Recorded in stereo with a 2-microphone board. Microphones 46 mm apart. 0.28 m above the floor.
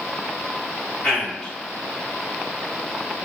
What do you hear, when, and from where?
1.0 s a man speaking: 15° left (ahead or behind), 1.6 m